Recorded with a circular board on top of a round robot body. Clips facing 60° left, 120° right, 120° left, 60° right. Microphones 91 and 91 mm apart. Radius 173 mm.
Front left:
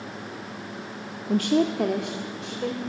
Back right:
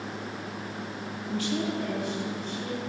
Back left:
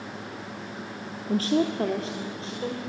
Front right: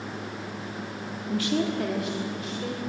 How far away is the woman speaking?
About 1.3 m.